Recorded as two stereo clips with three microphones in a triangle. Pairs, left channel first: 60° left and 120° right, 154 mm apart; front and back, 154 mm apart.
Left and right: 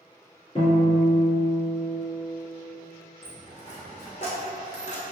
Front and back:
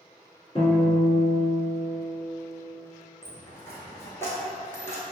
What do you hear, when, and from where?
0.6 s a guitar: 35° left, 2.0 m
3.2 s a dropped coin: 70° left, 0.8 m